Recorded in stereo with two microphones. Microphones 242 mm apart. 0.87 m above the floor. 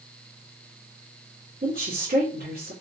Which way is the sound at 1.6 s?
40° right (ahead or behind).